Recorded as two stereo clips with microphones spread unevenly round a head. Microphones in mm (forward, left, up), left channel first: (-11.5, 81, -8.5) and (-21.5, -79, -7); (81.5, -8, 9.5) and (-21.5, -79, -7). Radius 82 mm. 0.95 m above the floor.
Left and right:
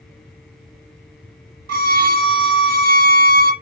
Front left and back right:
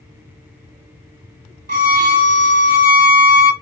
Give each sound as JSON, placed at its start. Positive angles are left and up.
{"t": 1.7, "sound": "a violin", "azimuth_deg": -130, "distance_m": 0.8}